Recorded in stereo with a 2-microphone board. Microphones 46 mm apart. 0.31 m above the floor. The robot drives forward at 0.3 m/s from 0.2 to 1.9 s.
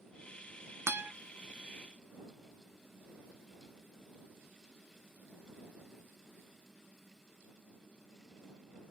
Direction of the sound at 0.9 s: 75° right (ahead or behind).